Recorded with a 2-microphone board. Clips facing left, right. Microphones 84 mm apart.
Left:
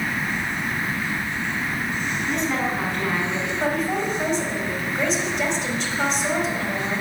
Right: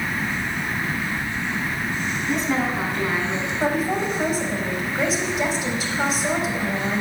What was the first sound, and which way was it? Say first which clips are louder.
A woman speaking: right 2 dB; 5° right (ahead or behind).